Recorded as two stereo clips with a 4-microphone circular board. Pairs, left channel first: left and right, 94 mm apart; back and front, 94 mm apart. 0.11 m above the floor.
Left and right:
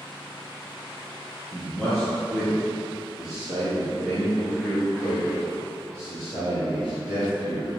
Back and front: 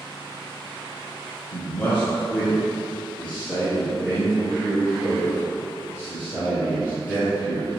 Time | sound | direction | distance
1.5 | a man speaking | 170° right | 1.6 m